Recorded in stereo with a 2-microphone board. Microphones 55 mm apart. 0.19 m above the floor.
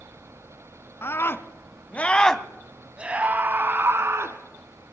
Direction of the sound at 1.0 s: 50° left (ahead or behind).